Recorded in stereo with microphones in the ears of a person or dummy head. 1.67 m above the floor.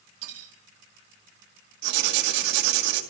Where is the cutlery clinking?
70° right (ahead or behind), 2.5 m.